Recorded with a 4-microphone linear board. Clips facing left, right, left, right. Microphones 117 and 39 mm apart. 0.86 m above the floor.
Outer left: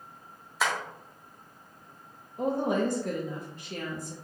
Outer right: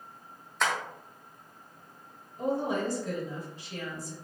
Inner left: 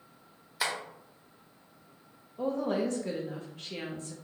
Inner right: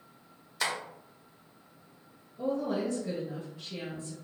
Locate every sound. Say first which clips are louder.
0.6 s tapping: even, even; 5° left (ahead or behind), 0.8 m
2.4 s a woman speaking: outer left 2 dB, inner left 1 dB; 55° left (ahead or behind), 1.0 m